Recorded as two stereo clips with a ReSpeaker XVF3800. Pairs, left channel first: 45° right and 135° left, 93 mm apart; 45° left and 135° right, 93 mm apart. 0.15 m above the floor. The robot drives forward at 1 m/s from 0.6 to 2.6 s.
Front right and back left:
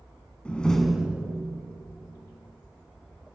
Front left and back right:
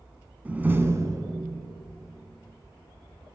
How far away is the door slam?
About 0.8 m.